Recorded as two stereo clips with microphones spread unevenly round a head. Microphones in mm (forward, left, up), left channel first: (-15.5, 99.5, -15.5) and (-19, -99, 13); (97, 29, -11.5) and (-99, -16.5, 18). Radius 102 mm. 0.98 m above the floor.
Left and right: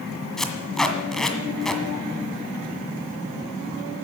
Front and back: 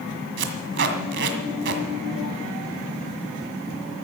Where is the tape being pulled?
Straight behind, 1.8 m.